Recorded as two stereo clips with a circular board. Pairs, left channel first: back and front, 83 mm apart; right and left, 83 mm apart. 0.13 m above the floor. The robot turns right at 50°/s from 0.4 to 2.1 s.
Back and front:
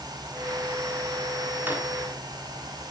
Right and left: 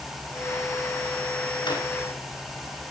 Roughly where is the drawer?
Right.